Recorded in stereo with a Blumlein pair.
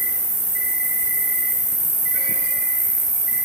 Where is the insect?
40° right, 0.8 m.